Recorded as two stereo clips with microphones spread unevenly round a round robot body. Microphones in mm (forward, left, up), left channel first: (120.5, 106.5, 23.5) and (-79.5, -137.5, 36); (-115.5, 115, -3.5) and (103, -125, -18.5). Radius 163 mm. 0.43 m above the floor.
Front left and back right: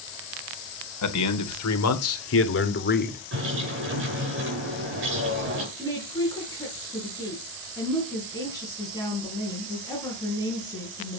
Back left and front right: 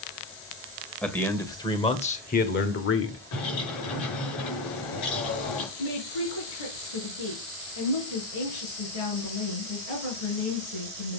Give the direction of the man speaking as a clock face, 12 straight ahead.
11 o'clock.